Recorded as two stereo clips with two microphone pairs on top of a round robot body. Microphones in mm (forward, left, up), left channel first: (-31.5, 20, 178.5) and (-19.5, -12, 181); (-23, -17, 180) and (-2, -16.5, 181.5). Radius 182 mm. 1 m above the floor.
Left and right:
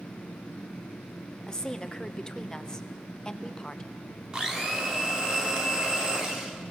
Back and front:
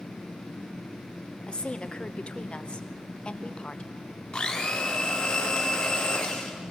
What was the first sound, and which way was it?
A woman speaking, 175° left.